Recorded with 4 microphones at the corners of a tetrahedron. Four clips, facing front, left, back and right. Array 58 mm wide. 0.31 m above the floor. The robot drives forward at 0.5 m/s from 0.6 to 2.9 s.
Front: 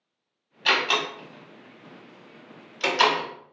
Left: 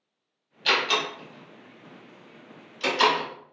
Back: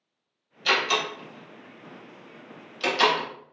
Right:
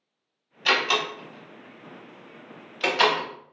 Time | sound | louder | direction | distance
0.7 | a door slam | right 1 dB, front 1 dB | 30° right | 1.8 m